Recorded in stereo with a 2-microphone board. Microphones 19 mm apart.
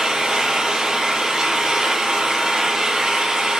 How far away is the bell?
I don't hear a bell.